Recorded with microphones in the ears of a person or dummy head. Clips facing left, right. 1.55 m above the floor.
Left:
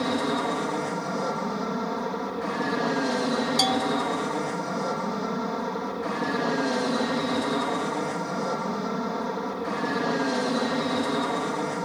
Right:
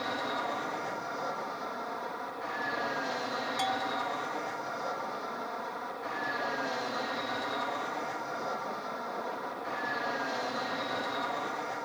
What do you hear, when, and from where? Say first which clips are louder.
0.0 s an aircraft: left 10 dB; 60° left (ahead or behind)
3.6 s a bell: left 9 dB; 60° left (ahead or behind)